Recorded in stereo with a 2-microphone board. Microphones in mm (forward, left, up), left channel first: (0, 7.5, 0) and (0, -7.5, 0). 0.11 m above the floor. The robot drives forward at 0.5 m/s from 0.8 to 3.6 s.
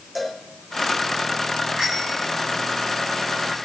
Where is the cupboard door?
No cupboard door in this recording.